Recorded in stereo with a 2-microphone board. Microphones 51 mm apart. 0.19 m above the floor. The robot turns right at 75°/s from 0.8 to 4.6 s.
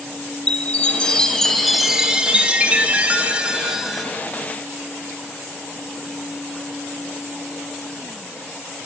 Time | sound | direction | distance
0.5 | a chime | 25° left (ahead or behind) | 0.6 m